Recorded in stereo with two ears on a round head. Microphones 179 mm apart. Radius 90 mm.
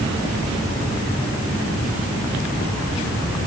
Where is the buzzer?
No buzzer in this recording.